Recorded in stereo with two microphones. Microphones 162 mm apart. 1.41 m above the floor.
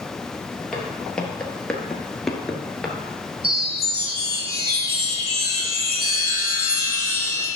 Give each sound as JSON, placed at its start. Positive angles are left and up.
{"t": 0.7, "sound": "footsteps", "side_deg": 5, "distance_m": 1.9}
{"t": 3.4, "sound": "a chime", "side_deg": -75, "distance_m": 1.9}